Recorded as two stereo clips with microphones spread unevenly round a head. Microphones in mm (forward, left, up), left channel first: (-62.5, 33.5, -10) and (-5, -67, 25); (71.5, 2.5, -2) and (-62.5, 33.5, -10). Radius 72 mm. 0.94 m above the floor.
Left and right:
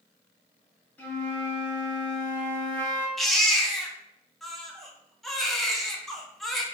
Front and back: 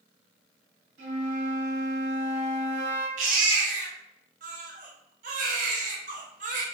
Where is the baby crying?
150° right, 0.8 m.